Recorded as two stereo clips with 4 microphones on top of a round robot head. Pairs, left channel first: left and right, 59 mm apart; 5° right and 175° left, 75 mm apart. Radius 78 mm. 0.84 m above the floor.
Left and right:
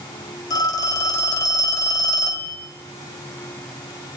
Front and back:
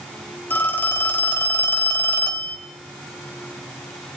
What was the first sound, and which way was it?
A phone ringing, 65° left.